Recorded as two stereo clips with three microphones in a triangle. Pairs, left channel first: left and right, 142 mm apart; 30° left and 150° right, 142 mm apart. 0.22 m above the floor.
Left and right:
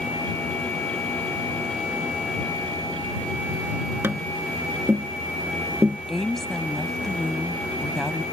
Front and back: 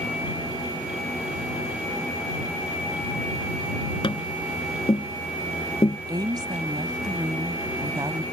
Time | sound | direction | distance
4.0 | tapping | 20° right | ?
6.1 | a woman speaking | 175° left | ?